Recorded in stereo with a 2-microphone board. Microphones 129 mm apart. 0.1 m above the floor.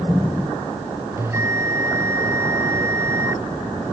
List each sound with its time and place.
1.2 s a bell: 20° right (ahead or behind)